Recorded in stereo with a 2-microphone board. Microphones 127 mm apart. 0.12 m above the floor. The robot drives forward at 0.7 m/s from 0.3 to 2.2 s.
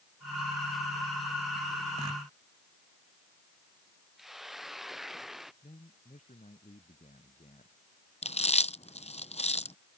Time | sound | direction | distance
4.2 | a hiss | centre (ahead or behind) | ?
5.6 | a man speaking | 80° left | ?
8.2 | chewing | 60° left (ahead or behind) | ?